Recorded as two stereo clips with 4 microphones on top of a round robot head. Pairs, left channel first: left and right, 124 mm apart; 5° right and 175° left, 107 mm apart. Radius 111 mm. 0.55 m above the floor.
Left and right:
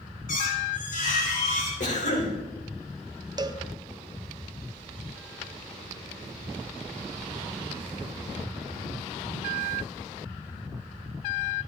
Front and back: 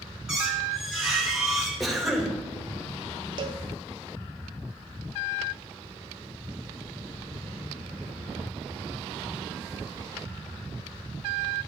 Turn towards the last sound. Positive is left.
turn(degrees=-145)